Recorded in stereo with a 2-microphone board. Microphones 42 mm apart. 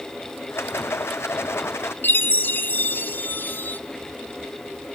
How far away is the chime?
About 0.8 m.